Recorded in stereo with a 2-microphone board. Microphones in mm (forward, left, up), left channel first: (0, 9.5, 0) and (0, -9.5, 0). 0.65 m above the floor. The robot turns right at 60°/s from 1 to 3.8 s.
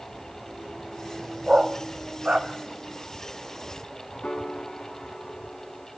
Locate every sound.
1.5 s a dog barking: 50° right (ahead or behind), 1.4 m; by 2.5 s 65° right (ahead or behind), 1.4 m
4.2 s a piano: 85° left, 4.5 m